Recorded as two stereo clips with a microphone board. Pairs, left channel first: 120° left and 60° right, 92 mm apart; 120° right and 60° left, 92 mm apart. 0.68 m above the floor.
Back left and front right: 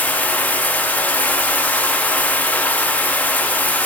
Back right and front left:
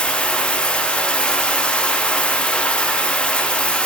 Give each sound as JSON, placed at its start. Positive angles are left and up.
{"t": 0.0, "sound": "running water", "azimuth_deg": 175, "distance_m": 0.9}